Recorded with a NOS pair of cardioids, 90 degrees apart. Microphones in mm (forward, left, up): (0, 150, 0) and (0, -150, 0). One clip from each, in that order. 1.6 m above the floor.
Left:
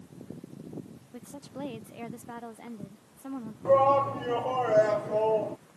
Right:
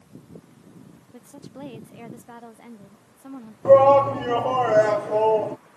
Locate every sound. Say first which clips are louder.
1.1 s a woman speaking: even; 5° left
3.6 s a shout: right 8 dB; 35° right